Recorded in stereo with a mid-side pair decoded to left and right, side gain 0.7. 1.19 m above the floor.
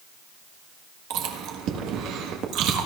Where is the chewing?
60° right, 1.5 m.